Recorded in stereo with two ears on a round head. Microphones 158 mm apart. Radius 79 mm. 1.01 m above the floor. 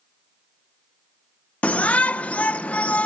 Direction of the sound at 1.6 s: 10° left (ahead or behind).